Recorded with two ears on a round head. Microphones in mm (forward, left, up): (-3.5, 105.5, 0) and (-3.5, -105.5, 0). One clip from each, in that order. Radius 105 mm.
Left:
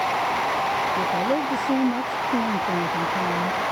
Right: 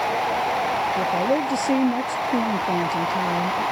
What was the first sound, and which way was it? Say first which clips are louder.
A woman speaking: right 1 dB; 55° right (ahead or behind).